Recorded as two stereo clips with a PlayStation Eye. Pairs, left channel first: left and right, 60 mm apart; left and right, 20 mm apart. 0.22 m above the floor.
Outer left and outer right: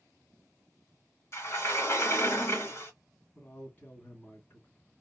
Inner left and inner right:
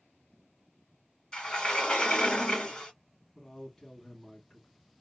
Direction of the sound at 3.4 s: 30° left (ahead or behind).